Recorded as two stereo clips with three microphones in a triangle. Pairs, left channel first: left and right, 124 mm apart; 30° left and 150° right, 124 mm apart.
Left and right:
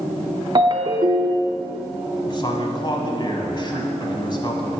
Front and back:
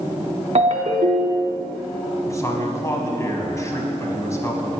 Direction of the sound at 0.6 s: 140° right.